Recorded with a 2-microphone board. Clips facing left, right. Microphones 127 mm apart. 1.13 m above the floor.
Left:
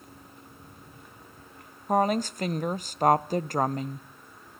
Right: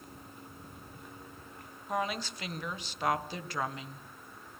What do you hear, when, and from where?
1.9 s a woman speaking: 45° left (ahead or behind), 0.5 m